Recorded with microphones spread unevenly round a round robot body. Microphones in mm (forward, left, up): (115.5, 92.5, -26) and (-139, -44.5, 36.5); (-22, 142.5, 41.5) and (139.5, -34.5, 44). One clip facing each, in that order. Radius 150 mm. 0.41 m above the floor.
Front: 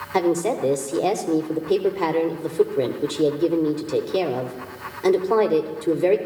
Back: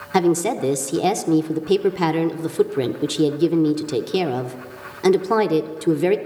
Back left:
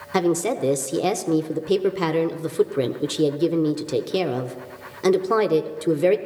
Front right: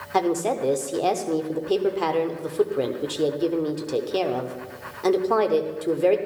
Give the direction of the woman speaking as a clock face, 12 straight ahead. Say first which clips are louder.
Back 2 dB, back left 2 dB; 7 o'clock.